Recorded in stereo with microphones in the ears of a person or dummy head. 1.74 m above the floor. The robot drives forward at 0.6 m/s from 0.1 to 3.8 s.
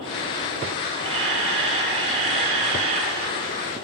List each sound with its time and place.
1.0 s a camera shutter: 30° right (ahead or behind), 8 m; by 3.2 s 35° right (ahead or behind), 6.5 m